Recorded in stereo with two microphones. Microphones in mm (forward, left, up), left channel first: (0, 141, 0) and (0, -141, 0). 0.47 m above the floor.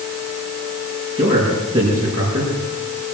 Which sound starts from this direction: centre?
A man speaking, at 1.2 s.